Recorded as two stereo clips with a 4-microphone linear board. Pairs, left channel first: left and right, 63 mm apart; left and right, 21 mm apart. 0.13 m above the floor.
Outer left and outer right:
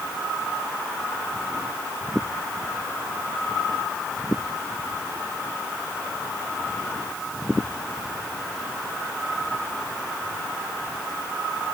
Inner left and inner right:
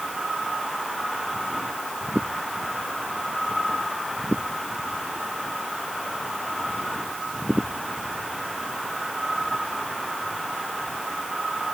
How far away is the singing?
I don't hear singing.